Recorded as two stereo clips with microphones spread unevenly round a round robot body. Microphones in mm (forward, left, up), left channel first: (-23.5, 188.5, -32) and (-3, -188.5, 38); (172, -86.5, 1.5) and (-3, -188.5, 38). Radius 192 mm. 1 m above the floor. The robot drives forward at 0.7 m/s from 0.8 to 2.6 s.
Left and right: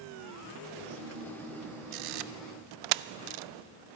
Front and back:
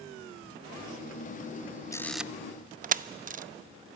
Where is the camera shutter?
40° right, 0.7 m; by 3.4 s 90° right, 0.5 m.